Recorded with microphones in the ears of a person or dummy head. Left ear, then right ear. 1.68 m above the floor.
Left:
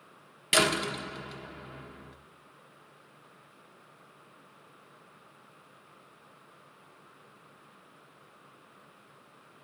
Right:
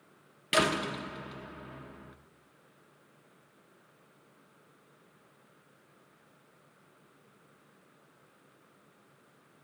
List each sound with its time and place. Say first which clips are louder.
0.5 s a door slam: left 2 dB; 5° left (ahead or behind), 0.7 m